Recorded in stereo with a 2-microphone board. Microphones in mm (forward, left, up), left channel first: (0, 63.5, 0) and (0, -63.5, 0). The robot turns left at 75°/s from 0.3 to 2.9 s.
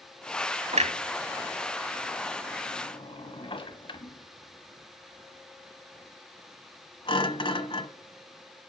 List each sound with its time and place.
0.7 s a clunk: 60° right (ahead or behind), 1.0 m; by 7.9 s 45° left (ahead or behind), 1.0 m